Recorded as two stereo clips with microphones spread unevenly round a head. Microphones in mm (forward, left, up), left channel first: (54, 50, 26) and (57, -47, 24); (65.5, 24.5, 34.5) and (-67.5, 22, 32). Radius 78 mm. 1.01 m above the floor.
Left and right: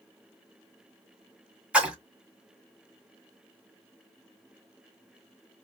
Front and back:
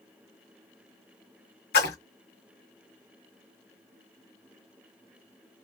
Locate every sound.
1.7 s a splash: 10° right, 1.6 m